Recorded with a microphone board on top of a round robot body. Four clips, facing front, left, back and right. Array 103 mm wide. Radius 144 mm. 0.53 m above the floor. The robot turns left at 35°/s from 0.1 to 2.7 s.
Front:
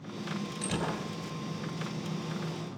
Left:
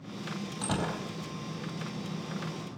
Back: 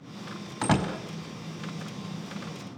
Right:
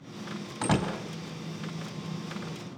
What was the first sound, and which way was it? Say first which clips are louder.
A door slam: right 5 dB, back 9 dB; 155° right.